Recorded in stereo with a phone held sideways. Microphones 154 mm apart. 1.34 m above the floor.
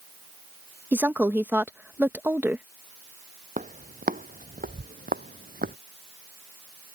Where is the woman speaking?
10° right (ahead or behind).